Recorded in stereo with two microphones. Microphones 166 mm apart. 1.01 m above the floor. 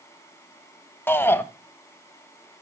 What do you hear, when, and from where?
1.1 s a shout: 15° left (ahead or behind), 1.2 m